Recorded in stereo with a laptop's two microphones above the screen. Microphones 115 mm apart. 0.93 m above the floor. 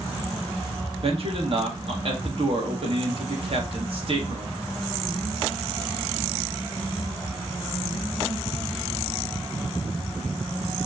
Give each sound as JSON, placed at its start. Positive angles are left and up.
{"t": 1.0, "sound": "a man speaking", "side_deg": -55, "distance_m": 1.8}